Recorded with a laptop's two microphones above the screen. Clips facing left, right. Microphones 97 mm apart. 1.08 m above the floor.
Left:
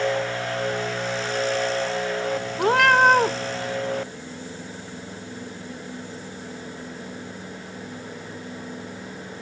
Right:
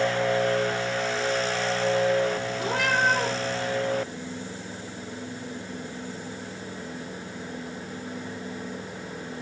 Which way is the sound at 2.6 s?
65° left (ahead or behind).